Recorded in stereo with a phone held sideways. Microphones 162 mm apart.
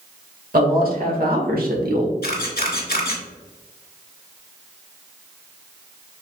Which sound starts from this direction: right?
A man speaking, at 0.5 s.